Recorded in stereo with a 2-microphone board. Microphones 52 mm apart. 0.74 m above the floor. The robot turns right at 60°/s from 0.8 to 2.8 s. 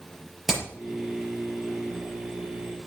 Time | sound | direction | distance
0.5 | hammering | centre (ahead or behind) | 6 m